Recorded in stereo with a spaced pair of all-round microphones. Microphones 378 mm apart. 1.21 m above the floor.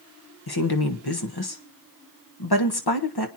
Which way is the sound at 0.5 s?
70° left (ahead or behind).